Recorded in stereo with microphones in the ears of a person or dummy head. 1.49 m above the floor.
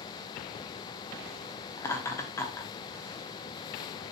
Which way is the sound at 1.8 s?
20° left (ahead or behind).